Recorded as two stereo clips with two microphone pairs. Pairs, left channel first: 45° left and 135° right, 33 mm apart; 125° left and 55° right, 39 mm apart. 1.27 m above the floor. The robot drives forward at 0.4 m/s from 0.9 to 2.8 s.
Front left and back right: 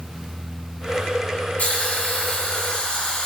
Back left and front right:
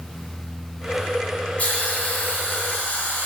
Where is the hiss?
75° left, 1.8 m; by 3.3 s 90° left, 1.8 m.